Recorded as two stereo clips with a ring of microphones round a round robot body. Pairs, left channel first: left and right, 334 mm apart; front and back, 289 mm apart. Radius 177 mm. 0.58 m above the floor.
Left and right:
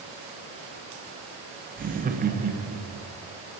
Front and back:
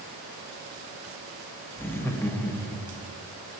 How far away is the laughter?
About 0.6 m.